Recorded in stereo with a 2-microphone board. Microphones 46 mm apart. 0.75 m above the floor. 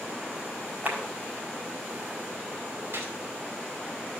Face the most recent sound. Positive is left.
turn(degrees=-60)  # may be behind; listen again after turning